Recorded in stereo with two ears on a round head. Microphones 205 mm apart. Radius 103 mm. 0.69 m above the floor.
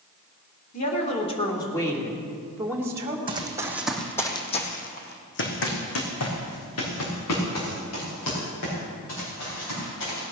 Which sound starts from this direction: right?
Running footsteps, at 3.3 s.